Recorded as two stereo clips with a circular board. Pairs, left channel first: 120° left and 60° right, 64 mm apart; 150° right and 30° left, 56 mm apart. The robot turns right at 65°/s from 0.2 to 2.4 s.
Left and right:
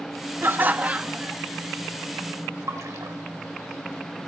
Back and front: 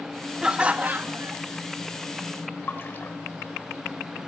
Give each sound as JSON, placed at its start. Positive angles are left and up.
{"t": 0.4, "sound": "laughter", "azimuth_deg": -40, "distance_m": 0.9}
{"t": 2.7, "sound": "a splash", "azimuth_deg": -100, "distance_m": 1.7}